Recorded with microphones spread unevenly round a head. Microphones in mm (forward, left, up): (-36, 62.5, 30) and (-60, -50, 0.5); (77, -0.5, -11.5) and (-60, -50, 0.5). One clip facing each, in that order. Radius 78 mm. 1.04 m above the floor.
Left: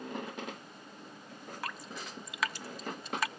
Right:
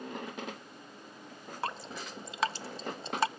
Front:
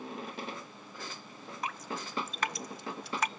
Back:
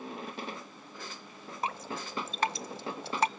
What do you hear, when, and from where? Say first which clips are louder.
1.6 s dripping: right 5 dB, back 3 dB; 105° right, 0.6 m